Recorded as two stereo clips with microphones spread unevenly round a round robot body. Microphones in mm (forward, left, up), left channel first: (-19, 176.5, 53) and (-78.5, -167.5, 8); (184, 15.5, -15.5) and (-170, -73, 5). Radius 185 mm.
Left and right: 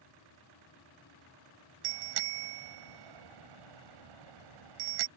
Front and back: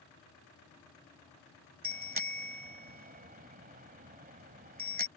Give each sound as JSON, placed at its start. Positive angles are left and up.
{"t": 1.8, "sound": "a bicycle bell", "azimuth_deg": -100}